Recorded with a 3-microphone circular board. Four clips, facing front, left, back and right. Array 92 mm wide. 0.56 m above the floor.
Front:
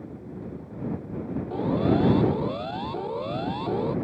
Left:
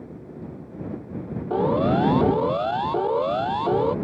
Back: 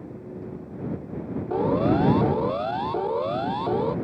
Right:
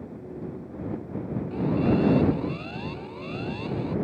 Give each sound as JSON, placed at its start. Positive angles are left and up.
{"t": 1.5, "sound": "a siren", "azimuth_deg": 115}